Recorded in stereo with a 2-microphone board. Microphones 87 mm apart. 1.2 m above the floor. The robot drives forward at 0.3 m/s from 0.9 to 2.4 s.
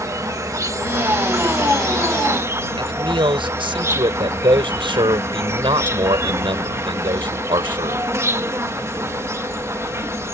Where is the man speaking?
80° right.